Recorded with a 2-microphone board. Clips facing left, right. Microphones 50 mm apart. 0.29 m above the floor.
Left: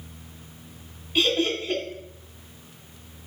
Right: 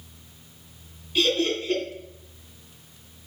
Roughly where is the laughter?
Left.